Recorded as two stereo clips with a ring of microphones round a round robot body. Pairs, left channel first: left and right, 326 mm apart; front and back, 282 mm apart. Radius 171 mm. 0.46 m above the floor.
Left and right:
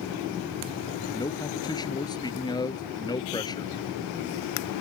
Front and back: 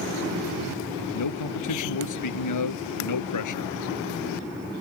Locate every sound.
1.1 s a man speaking: 10° left